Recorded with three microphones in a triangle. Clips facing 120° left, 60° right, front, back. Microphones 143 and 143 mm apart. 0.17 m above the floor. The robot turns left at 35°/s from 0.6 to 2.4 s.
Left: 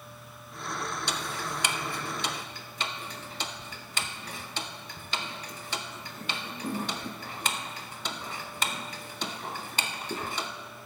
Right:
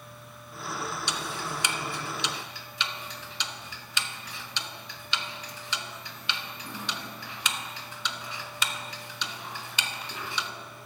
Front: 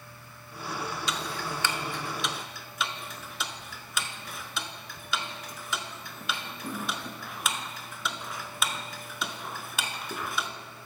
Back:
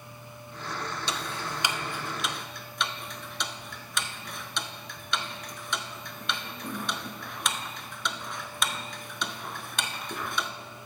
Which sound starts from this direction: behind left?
Ticking, at 1.1 s.